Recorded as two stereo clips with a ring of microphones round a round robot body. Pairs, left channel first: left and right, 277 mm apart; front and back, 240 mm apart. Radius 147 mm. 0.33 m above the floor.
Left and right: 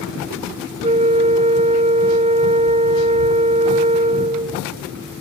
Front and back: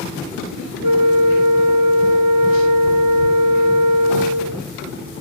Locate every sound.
0.8 s a flute: 160° right